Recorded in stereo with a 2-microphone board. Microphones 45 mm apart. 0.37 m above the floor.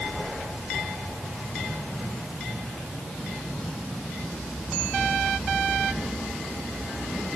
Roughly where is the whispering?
No whispering in this recording.